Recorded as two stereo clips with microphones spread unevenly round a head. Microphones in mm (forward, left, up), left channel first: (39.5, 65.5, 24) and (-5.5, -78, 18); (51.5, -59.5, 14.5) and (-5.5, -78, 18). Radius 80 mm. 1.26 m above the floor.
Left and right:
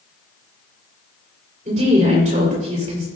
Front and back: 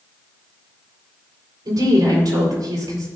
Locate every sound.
1.6 s a woman speaking: 155° right, 5.5 m